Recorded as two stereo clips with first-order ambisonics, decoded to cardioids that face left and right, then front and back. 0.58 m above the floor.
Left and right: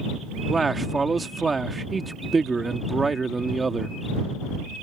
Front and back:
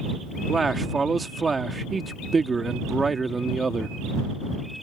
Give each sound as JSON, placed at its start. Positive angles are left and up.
{"t": 0.5, "sound": "a man speaking", "azimuth_deg": -140}